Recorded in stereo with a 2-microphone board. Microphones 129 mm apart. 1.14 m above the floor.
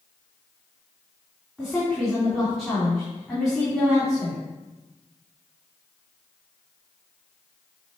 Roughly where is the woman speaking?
Centre.